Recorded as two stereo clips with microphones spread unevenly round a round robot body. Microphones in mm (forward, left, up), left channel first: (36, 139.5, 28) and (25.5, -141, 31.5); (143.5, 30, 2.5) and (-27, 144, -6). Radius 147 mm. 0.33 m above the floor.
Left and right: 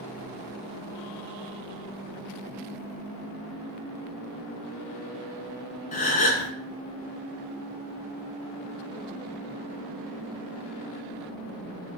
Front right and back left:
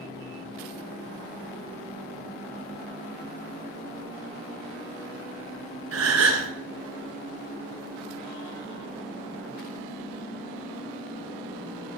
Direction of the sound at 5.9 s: 150° left.